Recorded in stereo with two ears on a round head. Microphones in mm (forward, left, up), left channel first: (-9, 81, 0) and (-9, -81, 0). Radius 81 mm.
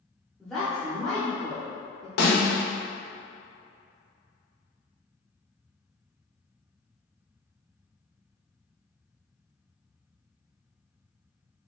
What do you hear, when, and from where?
0.4 s a woman speaking: centre (ahead or behind), 0.9 m
2.2 s a snare drum: 60° left (ahead or behind), 1.0 m